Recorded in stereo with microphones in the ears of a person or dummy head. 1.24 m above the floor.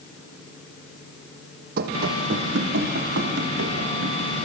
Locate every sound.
1.8 s running footsteps: 55° right (ahead or behind), 2.5 m; by 4.2 s 75° right (ahead or behind), 5.5 m